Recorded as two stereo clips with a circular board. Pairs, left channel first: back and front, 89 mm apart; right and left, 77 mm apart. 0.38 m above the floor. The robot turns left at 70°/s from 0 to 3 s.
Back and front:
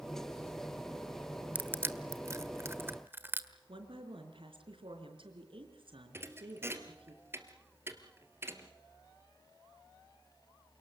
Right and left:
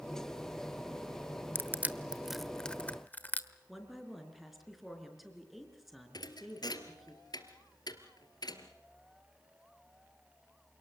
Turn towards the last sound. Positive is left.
turn(degrees=-65)